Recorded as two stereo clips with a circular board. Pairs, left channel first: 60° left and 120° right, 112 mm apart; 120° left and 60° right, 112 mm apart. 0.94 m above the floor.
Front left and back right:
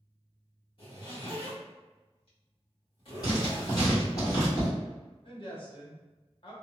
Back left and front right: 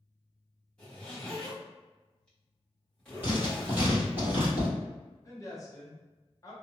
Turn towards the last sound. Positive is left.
turn(degrees=70)